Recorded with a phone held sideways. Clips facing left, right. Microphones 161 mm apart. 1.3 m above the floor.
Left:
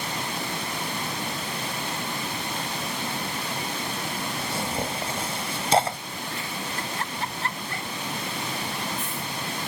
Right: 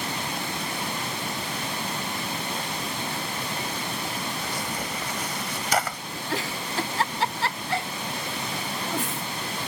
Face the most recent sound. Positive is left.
turn(degrees=-80)